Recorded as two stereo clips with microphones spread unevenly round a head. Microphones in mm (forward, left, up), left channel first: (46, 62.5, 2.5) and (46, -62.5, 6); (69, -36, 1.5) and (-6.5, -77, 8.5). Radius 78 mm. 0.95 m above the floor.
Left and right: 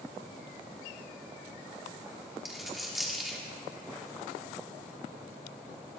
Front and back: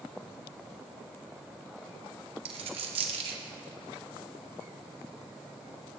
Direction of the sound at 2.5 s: Straight behind.